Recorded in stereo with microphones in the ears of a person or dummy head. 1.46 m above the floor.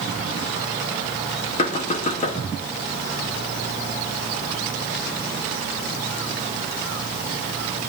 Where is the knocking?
40° left (ahead or behind), 1.7 m.